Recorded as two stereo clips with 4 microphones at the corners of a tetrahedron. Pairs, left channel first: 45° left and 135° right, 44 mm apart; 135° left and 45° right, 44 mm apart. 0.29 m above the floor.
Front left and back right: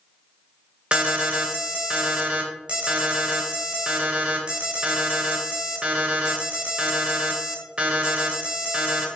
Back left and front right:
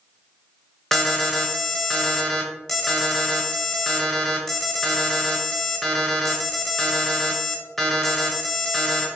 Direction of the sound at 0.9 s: 160° right.